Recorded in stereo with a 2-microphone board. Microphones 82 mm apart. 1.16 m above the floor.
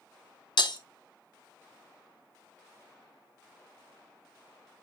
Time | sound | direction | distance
0.6 | breaking glass | 60° left (ahead or behind) | 1.0 m